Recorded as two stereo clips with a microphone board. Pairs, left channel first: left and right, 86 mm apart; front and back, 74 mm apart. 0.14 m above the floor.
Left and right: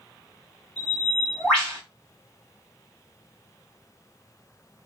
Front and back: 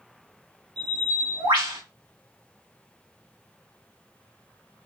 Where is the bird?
Straight behind, 2 m.